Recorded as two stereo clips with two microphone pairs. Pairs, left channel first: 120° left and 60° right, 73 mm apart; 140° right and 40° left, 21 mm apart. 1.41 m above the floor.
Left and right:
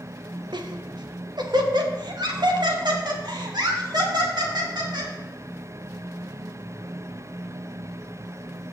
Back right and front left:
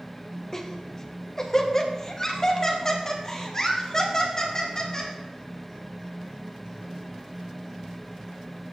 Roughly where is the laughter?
Right.